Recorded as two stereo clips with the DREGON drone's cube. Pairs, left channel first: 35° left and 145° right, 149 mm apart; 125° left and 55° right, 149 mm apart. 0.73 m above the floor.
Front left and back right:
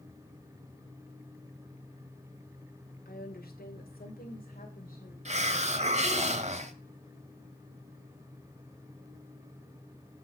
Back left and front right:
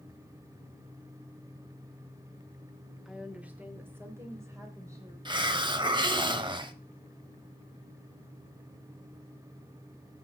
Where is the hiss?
110° right, 0.8 m.